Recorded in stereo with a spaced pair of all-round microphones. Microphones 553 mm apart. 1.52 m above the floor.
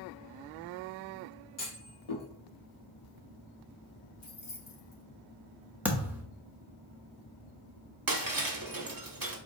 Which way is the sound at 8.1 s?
40° right (ahead or behind).